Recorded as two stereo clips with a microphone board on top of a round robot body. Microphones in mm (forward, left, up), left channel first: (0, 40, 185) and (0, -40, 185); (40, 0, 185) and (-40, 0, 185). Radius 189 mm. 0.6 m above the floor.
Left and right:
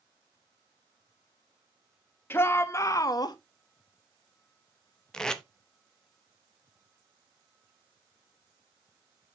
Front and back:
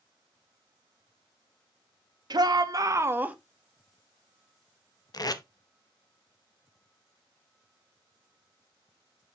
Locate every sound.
2.3 s a shout: 150° left, 1.4 m; by 3.4 s 105° left, 0.9 m
5.1 s tape being pulled: 10° left, 1.1 m